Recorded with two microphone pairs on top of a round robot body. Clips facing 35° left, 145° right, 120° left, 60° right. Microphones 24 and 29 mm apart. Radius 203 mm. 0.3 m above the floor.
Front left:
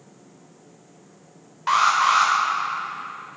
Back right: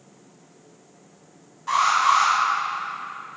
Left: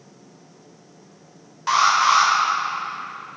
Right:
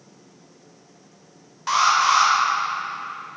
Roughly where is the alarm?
Ahead left.